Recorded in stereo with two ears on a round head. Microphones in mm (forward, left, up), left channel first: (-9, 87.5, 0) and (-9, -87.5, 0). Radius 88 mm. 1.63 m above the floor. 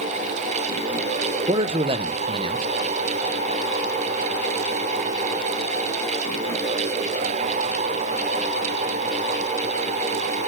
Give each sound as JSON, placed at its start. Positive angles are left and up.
{"t": 1.5, "sound": "a man speaking", "side_deg": -30, "distance_m": 1.2}